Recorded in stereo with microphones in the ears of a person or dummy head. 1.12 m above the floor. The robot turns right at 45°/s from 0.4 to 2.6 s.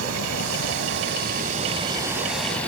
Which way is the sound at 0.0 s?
90° right.